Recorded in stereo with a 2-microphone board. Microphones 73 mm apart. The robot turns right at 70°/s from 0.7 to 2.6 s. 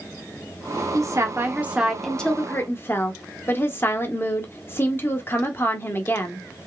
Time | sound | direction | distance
0.9 | a woman speaking | 75° right | 1.1 m